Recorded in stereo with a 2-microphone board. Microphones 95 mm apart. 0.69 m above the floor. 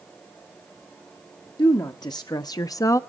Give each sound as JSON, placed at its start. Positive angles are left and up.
{"t": 1.6, "sound": "a woman speaking", "side_deg": 45, "distance_m": 1.1}